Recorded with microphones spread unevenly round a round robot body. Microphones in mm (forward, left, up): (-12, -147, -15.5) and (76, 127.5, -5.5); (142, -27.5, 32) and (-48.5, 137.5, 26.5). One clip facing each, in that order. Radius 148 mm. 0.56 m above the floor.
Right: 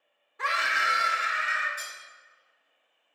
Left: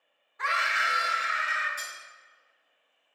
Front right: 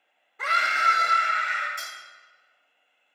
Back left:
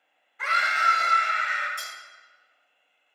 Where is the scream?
70° right, 0.8 m; by 1.7 s 140° right, 1.1 m.